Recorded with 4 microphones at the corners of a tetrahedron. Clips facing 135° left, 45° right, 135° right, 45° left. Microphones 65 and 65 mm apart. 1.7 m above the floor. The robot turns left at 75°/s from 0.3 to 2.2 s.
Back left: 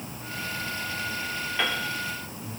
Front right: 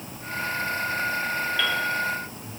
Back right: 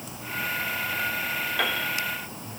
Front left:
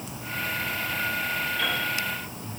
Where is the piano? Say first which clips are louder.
Front right 1 dB, back right 3 dB; 155° right, 3 m; by 1.8 s 170° right, 3 m.